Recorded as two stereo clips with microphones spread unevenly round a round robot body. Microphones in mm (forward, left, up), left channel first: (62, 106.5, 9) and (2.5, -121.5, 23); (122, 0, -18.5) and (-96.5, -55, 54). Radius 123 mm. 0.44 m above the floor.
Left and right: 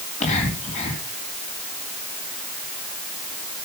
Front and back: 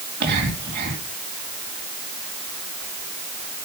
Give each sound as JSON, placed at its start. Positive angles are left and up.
{"t": 0.2, "sound": "whispering", "azimuth_deg": 140, "distance_m": 3.5}